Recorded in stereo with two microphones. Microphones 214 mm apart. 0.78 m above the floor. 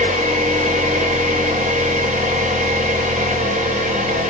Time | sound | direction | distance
0.0 | an engine running | 35° right (ahead or behind) | 3 m